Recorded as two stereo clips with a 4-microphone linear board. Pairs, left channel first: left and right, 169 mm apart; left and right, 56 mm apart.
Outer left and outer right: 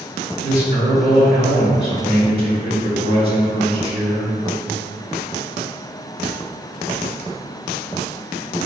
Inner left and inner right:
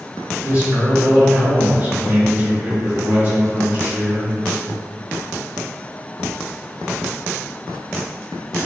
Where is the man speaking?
35° right (ahead or behind), 1.0 m.